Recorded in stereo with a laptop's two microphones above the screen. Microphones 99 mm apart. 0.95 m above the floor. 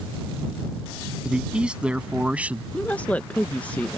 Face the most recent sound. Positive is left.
turn(degrees=15)  # may be behind; listen again after turning